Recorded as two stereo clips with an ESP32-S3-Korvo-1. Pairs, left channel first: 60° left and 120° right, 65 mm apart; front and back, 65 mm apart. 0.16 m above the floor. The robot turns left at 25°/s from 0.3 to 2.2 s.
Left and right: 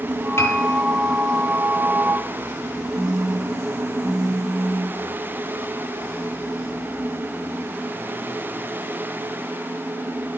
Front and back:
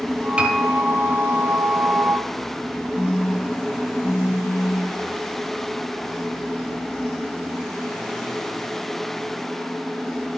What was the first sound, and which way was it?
A piano, 105° left.